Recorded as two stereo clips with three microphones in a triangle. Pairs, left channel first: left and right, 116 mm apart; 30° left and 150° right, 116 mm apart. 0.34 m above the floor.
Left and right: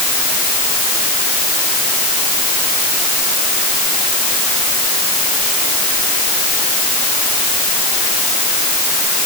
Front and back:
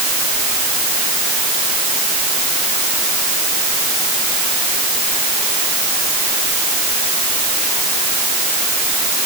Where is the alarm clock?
No alarm clock in this recording.